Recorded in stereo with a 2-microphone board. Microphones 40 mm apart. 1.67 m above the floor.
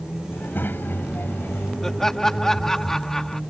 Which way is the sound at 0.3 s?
50° left (ahead or behind).